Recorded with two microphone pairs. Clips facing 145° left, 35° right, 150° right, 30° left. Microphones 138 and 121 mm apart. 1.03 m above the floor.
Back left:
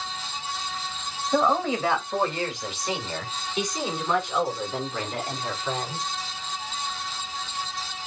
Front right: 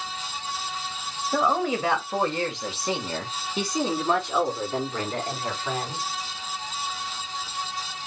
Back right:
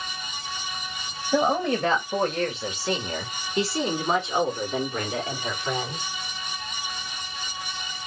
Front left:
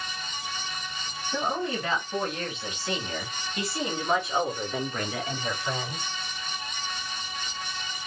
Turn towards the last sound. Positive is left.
turn(degrees=-80)